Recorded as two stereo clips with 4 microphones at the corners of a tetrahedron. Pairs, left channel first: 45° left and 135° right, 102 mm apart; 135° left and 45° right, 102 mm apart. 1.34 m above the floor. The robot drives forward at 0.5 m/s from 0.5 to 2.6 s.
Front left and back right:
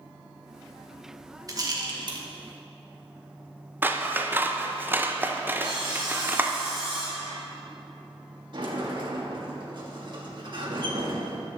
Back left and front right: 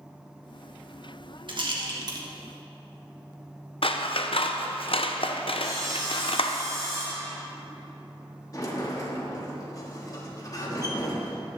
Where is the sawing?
100° right, 3.5 m.